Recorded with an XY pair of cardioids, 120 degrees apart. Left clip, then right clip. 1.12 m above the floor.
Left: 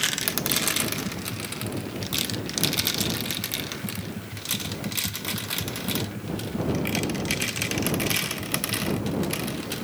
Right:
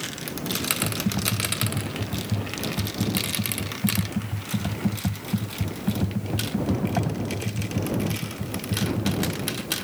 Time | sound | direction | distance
0.8 | typing on a keyboard | 50° right | ?